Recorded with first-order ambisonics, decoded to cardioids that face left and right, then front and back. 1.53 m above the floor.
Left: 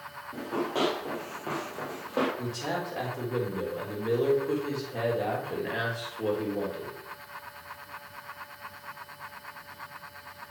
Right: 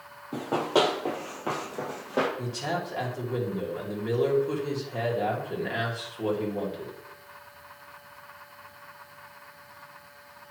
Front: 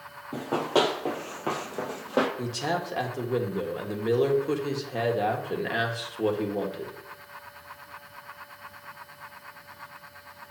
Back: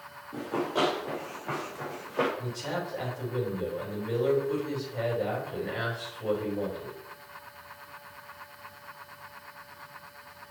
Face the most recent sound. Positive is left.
turn(degrees=0)